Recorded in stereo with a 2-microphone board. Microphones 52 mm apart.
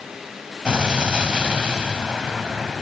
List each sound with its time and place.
0.7 s an explosion: 20° right (ahead or behind), 1.4 m